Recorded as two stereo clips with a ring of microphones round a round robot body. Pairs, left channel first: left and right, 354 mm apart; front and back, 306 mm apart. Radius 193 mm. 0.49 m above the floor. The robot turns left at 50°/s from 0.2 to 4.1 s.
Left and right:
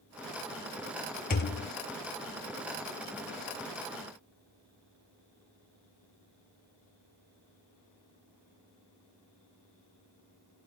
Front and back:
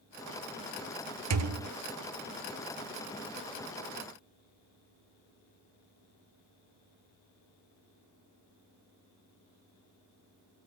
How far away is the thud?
About 0.8 m.